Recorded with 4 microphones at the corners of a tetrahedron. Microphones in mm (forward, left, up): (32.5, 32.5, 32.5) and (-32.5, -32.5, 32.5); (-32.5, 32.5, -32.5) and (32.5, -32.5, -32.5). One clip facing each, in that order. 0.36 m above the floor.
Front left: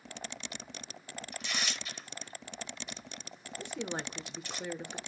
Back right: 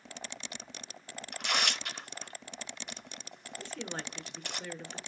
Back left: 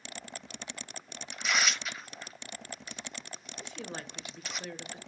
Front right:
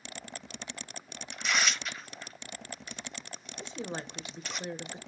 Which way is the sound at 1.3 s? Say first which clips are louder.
Back right 6 dB, even; 140° right.